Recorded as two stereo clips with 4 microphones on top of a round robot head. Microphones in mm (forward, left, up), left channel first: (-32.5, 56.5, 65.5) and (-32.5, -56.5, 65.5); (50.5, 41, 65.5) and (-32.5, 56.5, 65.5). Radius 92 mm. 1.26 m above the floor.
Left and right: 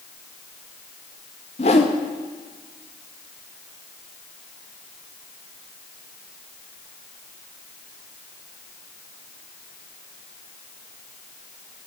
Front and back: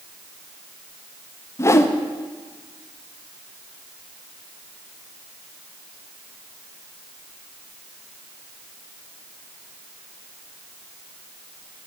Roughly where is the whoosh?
Ahead left.